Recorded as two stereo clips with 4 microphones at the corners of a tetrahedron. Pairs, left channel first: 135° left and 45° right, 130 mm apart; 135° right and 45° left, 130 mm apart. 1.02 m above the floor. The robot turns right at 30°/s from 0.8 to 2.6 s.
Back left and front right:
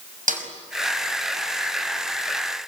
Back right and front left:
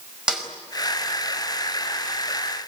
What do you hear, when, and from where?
0.3 s a snare drum: 40° right, 5 m